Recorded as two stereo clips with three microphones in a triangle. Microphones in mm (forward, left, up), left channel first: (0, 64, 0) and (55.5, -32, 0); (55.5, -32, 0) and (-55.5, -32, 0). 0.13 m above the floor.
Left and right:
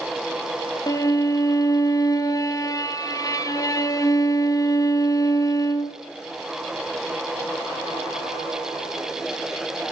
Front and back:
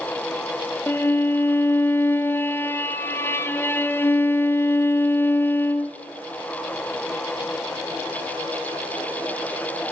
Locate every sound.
0.9 s a violin: 65° left, 1.1 m